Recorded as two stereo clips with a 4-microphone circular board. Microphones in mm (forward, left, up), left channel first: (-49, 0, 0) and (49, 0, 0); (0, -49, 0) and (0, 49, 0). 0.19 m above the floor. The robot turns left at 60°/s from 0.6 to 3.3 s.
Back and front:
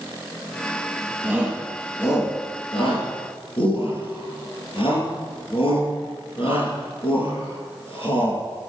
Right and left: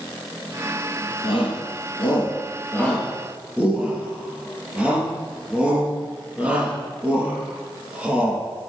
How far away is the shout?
About 4.5 m.